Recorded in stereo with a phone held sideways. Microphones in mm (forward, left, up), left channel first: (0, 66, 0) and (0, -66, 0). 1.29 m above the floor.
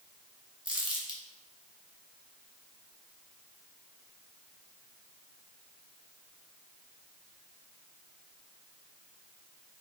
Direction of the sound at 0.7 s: 35° right (ahead or behind).